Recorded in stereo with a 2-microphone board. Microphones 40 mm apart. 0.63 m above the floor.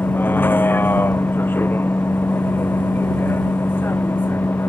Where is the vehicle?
55° left (ahead or behind); by 4.7 s 60° left (ahead or behind).